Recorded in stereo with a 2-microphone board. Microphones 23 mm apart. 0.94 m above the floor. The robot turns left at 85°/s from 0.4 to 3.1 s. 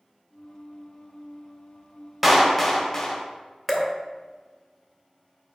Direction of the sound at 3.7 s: 10° left (ahead or behind).